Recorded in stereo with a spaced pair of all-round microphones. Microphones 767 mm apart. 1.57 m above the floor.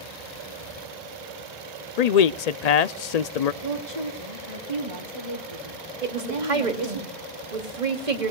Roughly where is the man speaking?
Left.